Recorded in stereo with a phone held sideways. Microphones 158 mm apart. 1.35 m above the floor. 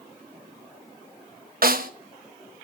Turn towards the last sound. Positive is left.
turn(degrees=-70)  # may be behind; listen again after turning